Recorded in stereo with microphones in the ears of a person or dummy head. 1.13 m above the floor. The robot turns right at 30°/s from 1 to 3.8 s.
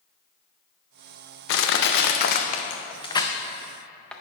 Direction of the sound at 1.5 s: 70° left (ahead or behind).